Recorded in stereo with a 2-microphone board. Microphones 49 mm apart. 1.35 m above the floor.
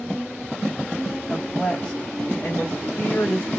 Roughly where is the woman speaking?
Centre.